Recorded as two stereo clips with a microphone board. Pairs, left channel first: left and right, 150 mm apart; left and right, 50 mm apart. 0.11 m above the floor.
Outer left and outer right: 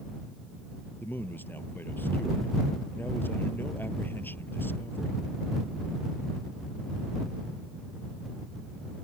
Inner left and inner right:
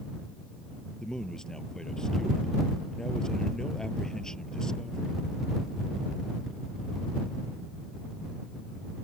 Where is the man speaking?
15° left (ahead or behind).